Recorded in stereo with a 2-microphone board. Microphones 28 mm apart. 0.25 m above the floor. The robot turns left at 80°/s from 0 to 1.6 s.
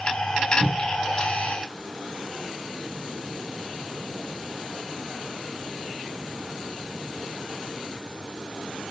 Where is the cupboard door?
80° right, 6 m; by 1.1 s 45° right (ahead or behind), 6 m.